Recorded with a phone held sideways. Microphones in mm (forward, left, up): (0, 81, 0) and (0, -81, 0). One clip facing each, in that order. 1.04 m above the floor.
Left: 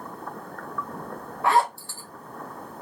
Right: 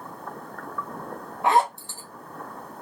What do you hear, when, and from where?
1.4 s a zipper: 20° right (ahead or behind), 0.5 m